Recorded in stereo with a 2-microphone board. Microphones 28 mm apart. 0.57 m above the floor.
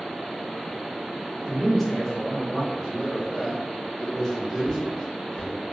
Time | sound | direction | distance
1.4 | a man speaking | 20° right (ahead or behind) | 1.2 m
2.8 | a man speaking | 10° left (ahead or behind) | 1.5 m
4.6 | footsteps | 30° left (ahead or behind) | 1.4 m